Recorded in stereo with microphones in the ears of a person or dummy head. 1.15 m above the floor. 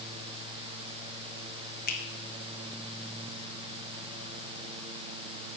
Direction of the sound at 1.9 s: 50° left (ahead or behind).